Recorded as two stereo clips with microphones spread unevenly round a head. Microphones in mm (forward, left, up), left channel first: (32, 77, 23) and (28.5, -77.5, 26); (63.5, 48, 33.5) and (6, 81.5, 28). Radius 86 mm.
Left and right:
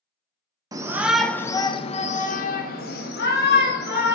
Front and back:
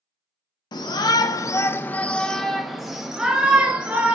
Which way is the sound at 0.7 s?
25° right.